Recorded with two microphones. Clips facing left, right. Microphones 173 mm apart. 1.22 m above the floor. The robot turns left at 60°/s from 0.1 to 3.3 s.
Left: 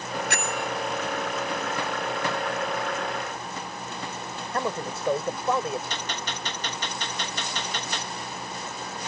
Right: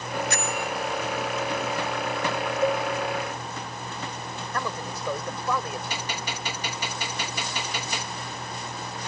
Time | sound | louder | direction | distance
0.3 | a bell | even | 65° left (ahead or behind) | ?
2.6 | a cowbell | right 6 dB | 50° right (ahead or behind) | ?
4.5 | a man speaking | left 4 dB | 25° left (ahead or behind) | ?
5.9 | a gunshot | right 1 dB | 10° right (ahead or behind) | ?